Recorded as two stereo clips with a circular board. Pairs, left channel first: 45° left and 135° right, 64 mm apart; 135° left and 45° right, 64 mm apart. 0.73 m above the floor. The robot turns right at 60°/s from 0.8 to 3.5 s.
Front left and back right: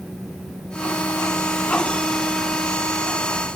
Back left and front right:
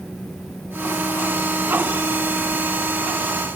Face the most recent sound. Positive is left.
No sound to turn to.